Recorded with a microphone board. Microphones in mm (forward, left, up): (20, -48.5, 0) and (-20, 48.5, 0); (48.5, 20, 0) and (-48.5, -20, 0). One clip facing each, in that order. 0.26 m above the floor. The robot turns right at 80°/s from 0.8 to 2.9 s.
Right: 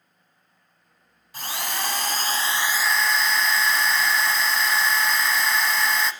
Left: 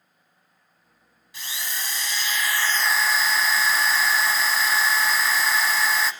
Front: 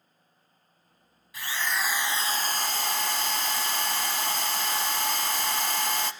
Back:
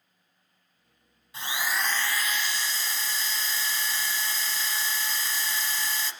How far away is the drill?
About 1.0 m.